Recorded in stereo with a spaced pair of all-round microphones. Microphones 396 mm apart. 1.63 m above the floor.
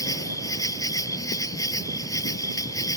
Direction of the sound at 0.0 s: 10° left (ahead or behind).